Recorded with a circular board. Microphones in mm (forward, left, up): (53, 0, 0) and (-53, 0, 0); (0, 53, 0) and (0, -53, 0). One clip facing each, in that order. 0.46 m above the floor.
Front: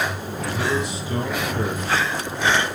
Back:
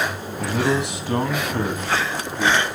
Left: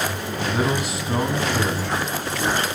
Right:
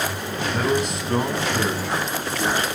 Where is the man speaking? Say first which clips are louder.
Back 3 dB, right 1 dB; 170° left, 2 m; by 2.6 s 170° right, 3.5 m.